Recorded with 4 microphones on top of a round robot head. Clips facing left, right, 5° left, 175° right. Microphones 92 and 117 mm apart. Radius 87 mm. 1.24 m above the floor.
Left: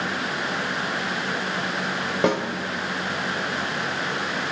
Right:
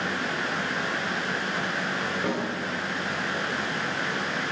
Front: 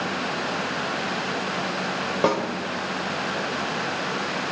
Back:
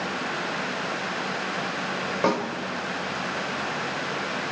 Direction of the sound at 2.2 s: 80° left.